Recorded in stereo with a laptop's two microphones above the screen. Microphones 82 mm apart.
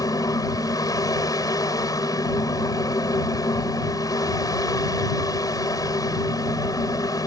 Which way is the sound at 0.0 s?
55° left (ahead or behind).